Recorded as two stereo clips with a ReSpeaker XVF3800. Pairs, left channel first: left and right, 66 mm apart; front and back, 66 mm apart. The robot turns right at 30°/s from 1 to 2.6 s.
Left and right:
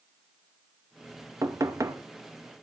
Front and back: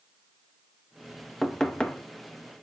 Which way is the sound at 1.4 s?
85° right.